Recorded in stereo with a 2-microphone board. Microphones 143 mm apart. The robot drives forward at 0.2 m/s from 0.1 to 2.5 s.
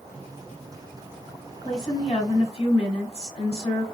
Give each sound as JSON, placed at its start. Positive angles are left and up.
{"t": 1.6, "sound": "a woman speaking", "side_deg": 45, "distance_m": 1.2}